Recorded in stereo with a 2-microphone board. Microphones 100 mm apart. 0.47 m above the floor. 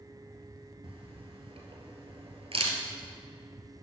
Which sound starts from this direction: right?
A camera shutter, at 0.8 s.